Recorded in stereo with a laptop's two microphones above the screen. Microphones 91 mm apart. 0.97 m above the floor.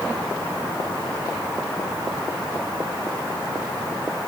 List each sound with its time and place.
Only background noise.